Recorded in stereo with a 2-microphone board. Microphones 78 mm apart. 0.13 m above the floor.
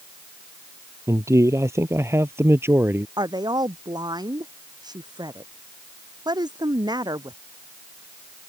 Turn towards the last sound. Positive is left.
turn(degrees=-60)  # may be behind; listen again after turning